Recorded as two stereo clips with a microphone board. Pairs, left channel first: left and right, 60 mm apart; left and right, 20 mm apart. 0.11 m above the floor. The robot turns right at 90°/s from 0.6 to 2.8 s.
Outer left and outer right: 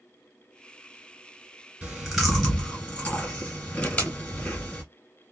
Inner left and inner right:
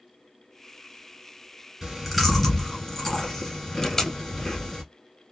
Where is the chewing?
20° right (ahead or behind), 1.7 m; by 4.8 s 20° left (ahead or behind), 1.7 m.